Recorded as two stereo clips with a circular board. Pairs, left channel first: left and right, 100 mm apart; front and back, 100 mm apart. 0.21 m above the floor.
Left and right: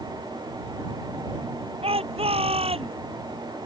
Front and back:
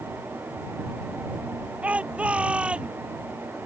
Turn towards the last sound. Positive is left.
turn(degrees=-100)